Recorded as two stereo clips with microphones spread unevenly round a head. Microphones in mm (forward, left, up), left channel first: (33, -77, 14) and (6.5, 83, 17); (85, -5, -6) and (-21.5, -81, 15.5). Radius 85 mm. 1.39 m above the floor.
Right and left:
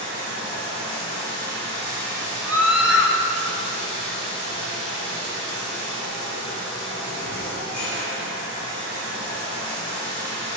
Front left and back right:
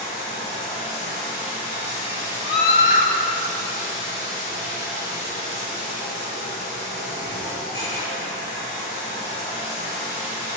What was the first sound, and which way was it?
Running water, 75° left.